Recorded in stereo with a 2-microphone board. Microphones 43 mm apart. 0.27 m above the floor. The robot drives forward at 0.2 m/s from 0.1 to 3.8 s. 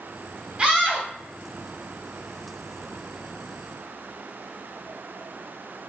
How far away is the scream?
About 1.5 m.